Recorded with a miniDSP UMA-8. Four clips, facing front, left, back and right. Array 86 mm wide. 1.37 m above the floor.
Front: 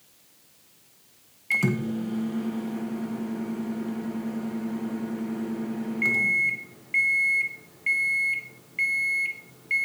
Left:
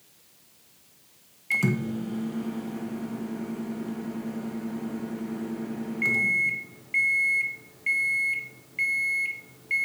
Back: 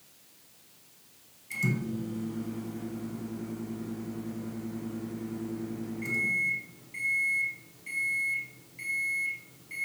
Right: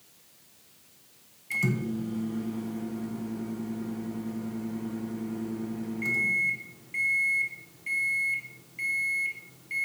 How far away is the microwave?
About 1.2 m.